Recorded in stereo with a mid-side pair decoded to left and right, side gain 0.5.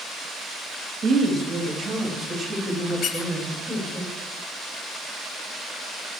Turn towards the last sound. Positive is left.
turn(degrees=55)